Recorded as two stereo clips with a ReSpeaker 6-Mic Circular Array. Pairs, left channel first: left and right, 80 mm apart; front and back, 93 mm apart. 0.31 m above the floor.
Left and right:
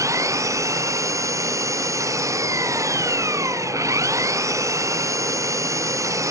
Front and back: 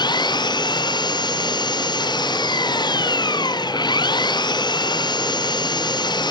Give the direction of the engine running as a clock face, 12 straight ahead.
1 o'clock.